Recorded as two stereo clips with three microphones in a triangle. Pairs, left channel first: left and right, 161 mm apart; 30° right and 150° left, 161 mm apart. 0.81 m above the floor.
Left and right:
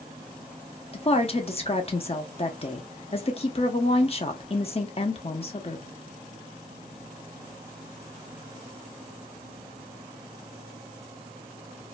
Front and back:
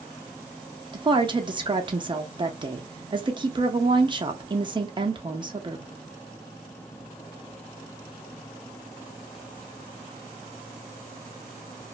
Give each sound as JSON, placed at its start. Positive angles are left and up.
{"t": 0.9, "sound": "a woman speaking", "azimuth_deg": 110, "distance_m": 0.6}